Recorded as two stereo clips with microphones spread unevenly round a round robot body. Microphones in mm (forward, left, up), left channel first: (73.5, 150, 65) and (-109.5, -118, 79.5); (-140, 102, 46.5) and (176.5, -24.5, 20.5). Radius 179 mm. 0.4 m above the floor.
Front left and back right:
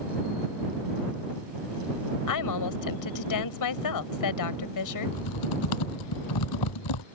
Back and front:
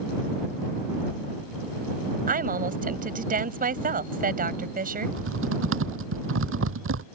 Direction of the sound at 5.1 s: 30° left.